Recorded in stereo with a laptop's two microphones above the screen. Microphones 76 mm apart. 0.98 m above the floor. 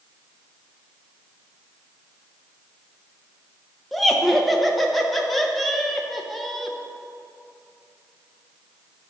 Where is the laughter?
Centre (ahead or behind), 0.7 m.